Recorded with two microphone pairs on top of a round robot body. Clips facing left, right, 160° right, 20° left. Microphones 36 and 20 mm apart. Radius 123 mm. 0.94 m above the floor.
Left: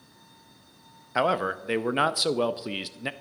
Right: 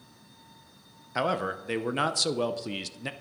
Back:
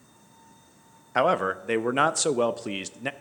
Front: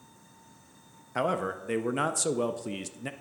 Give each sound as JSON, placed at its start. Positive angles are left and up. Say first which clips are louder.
{"t": 1.1, "sound": "a man speaking", "louder": "left 4 dB, back 6 dB", "azimuth_deg": 165, "distance_m": 0.5}